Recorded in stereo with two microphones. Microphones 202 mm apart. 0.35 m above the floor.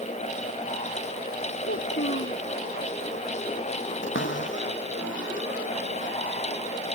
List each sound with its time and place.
1.6 s a child speaking: 80° left
4.0 s a cupboard door: 75° left (ahead or behind)